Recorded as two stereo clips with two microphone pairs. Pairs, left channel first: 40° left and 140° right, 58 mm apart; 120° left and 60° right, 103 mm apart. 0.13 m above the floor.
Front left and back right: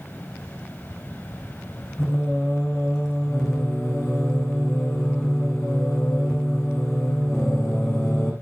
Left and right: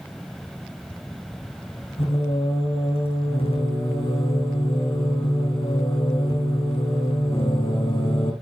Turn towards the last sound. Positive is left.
turn(degrees=115)